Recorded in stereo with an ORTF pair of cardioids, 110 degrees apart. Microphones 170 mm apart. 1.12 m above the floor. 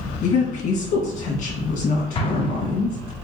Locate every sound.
0.2 s a woman speaking: 55° left, 1.5 m
2.1 s an explosion: 30° left, 0.6 m